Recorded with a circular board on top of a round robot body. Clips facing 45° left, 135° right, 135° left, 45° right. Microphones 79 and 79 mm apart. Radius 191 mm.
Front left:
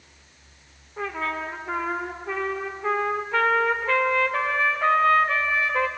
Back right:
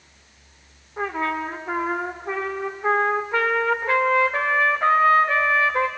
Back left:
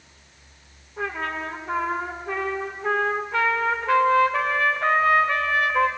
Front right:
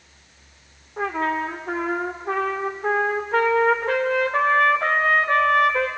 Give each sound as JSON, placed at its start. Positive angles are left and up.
{"t": 1.0, "sound": "a trumpet", "azimuth_deg": -70, "distance_m": 0.8}